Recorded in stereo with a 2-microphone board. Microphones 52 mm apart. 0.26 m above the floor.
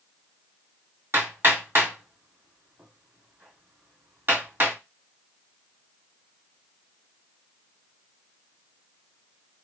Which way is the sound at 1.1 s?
45° right (ahead or behind).